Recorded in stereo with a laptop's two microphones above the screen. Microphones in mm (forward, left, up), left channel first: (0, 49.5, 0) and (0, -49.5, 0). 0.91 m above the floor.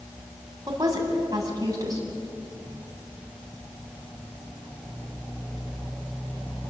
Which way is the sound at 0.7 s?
40° right (ahead or behind).